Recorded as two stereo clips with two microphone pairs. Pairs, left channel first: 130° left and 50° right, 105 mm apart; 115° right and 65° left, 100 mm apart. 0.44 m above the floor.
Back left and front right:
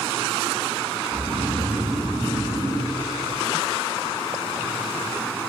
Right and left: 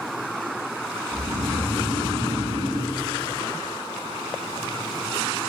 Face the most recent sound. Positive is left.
turn(degrees=50)